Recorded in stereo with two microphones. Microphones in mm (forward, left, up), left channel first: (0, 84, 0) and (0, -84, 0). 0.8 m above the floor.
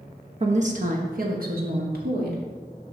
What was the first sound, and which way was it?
A woman speaking, 40° right (ahead or behind).